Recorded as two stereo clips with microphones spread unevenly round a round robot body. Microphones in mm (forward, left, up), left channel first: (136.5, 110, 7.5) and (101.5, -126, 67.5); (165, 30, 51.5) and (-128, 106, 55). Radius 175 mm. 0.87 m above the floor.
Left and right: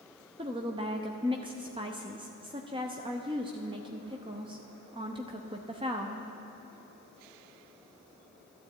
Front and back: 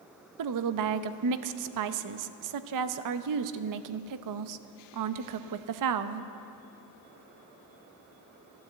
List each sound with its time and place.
0.4 s a woman speaking: straight behind, 0.7 m